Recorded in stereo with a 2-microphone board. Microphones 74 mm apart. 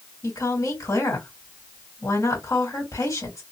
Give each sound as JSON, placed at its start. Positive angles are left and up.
{"t": 0.2, "sound": "a woman speaking", "side_deg": 45, "distance_m": 2.5}